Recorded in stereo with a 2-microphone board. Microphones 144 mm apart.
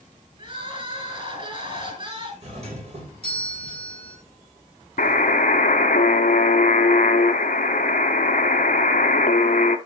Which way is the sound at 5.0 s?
85° left.